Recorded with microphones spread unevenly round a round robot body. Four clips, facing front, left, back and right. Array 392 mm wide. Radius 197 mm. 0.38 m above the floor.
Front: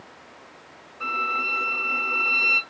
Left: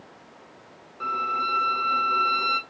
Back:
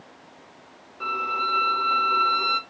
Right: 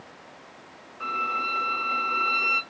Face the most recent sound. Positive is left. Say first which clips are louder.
# left 2 dB, back 1 dB
turn(degrees=120)